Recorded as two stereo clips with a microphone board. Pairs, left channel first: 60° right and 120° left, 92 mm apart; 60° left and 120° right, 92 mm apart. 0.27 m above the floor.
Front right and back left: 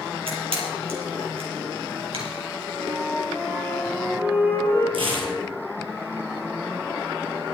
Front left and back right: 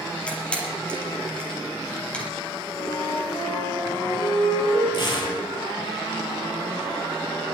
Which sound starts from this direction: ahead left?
A flute, at 2.8 s.